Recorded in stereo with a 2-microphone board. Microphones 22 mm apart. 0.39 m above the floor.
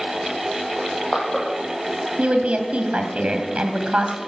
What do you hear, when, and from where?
0.8 s crushing: 30° left (ahead or behind), 6 m
2.2 s a woman speaking: 65° right (ahead or behind), 2.5 m